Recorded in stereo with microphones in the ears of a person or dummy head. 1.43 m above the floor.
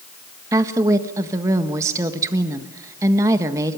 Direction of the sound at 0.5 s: 15° right (ahead or behind).